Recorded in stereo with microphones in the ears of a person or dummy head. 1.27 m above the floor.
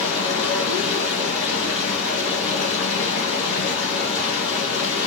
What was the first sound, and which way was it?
Running water, 60° left (ahead or behind).